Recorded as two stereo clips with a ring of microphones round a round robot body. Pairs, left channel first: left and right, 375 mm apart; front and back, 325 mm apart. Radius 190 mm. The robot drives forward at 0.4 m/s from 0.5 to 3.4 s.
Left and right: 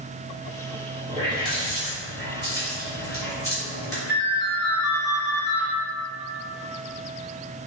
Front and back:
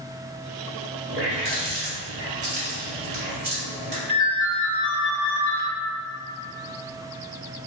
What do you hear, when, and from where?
1.1 s a running tap: 170° left, 1.5 m
4.1 s a ringtone: 155° left, 1.4 m